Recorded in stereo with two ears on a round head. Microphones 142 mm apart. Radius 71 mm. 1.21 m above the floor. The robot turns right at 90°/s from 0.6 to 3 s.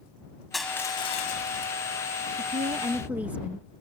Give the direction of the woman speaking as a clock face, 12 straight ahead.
2 o'clock.